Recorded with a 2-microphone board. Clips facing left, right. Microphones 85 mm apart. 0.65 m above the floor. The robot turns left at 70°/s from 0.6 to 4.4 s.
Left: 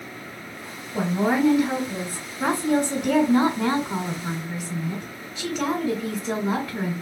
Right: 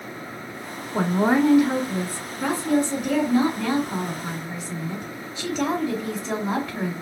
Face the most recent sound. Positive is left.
turn(degrees=-15)